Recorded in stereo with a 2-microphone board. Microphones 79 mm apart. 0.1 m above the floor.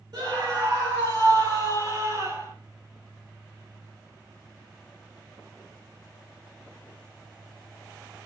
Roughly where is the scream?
Right.